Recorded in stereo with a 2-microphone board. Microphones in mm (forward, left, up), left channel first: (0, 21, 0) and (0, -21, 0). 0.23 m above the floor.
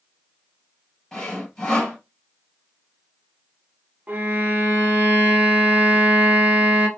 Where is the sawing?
15° left (ahead or behind), 3 m.